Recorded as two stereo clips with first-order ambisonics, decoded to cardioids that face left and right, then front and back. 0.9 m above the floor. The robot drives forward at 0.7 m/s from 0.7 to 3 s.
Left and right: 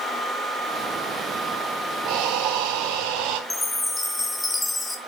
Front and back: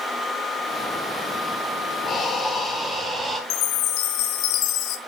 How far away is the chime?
About 0.8 m.